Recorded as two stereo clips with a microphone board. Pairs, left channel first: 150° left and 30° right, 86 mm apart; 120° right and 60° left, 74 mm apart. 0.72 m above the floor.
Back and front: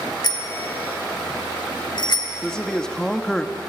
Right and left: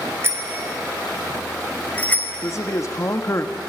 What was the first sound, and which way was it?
A bicycle bell, 115° left.